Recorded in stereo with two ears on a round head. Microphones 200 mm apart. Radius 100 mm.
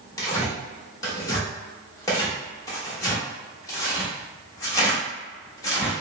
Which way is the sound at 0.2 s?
15° left (ahead or behind).